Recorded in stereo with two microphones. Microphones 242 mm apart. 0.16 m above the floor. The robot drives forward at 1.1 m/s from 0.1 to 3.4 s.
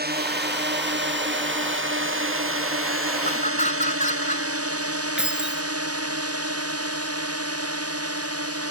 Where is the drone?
45° right (ahead or behind); by 8.7 s 80° right.